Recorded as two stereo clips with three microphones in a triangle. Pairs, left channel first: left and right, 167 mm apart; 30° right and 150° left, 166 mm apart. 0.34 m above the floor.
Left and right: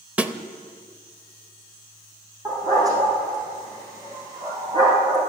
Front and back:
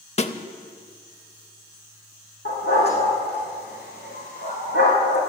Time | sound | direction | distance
0.2 | a snare drum | 10° right | 0.7 m
2.5 | a dog barking | 20° right | 4.5 m